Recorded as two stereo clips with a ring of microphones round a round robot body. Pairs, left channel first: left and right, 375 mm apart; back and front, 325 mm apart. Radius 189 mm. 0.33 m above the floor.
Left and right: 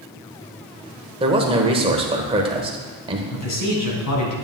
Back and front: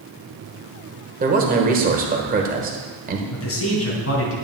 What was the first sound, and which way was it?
A man speaking, 30° right.